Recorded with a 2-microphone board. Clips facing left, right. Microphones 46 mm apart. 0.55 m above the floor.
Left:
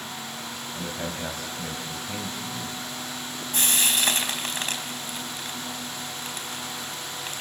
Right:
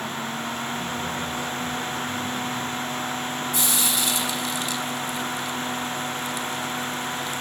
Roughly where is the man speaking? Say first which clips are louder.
Right 4 dB; left.